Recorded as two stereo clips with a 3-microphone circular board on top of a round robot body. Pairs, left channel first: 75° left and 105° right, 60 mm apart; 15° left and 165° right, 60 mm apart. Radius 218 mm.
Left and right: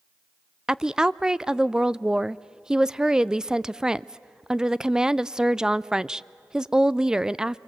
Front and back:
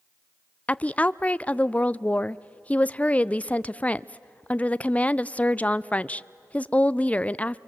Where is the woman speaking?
35° right, 0.6 m.